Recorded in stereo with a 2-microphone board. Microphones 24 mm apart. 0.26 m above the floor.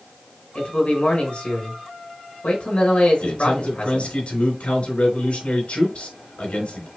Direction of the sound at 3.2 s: 65° left (ahead or behind).